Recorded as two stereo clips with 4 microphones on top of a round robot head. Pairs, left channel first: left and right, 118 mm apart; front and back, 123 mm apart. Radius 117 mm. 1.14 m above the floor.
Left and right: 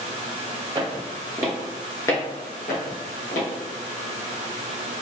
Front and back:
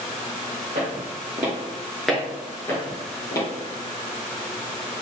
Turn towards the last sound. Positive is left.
turn(degrees=60)